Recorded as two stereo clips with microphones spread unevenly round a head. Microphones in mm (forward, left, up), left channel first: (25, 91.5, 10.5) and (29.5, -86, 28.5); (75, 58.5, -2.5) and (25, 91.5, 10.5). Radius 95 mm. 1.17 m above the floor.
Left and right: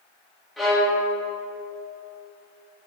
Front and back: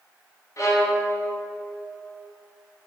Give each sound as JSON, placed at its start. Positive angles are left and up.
{"t": 0.6, "sound": "a violin", "azimuth_deg": 0, "distance_m": 1.7}